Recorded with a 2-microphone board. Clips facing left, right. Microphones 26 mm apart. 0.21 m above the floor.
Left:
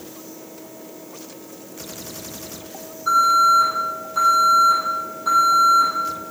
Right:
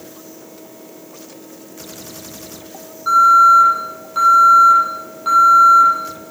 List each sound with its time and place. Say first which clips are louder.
3.1 s an alarm: right 6 dB; 35° right (ahead or behind), 8 m